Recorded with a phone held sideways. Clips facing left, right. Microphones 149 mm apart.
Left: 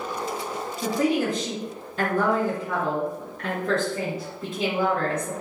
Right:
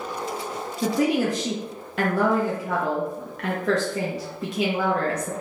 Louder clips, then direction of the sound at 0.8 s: Right 2 dB; 80° right.